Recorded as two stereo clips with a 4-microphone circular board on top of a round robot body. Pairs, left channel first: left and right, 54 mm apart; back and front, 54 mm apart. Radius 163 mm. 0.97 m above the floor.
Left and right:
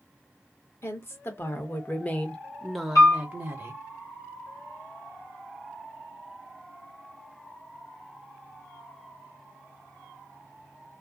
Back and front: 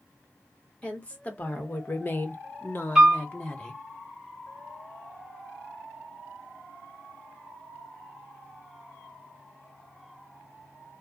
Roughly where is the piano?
Left.